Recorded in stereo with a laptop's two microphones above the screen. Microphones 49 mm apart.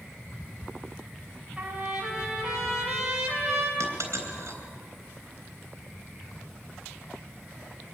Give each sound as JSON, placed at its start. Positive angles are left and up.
{"t": 1.6, "sound": "a trumpet", "side_deg": -15, "distance_m": 3.0}
{"t": 3.8, "sound": "a dropped coin", "side_deg": -65, "distance_m": 3.5}